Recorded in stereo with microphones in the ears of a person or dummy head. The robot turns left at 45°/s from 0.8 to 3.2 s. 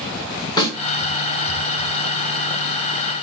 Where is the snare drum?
30° left (ahead or behind), 2.5 m.